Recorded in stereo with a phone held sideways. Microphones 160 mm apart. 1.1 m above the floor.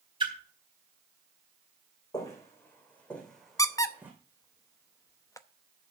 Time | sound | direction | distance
0.2 | a splash | 30° right (ahead or behind) | 3.5 m
2.1 | footsteps | 25° left (ahead or behind) | 4.5 m
3.6 | a squeak | 20° left (ahead or behind) | 0.7 m